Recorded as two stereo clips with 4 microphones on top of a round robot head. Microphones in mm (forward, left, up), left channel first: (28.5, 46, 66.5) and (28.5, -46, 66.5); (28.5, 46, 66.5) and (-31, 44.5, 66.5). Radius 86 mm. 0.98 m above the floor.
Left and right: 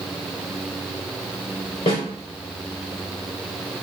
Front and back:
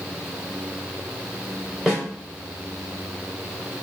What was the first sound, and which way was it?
A snare drum, 95° left.